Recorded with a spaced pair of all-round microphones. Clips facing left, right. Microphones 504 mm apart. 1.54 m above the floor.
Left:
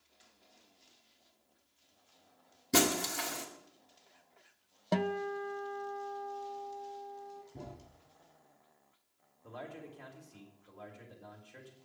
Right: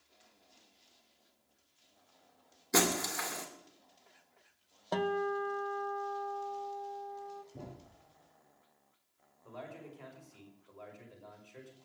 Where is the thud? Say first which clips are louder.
Even; 5° left (ahead or behind), 4.5 m.